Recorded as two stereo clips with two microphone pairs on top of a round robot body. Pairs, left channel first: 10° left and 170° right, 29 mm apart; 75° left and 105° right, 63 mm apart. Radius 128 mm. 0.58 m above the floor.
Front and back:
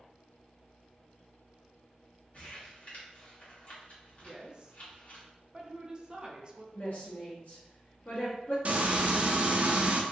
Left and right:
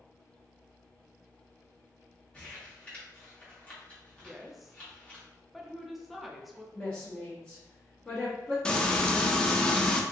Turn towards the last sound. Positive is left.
turn(degrees=145)